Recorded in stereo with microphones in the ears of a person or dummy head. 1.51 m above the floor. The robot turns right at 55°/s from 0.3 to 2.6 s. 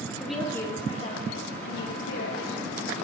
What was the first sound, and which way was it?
A woman speaking, 5° left.